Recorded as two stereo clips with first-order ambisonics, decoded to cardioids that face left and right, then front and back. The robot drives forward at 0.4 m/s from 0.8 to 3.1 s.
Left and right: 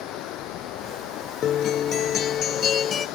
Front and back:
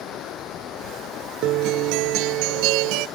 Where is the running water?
50° left; by 3.2 s 55° left.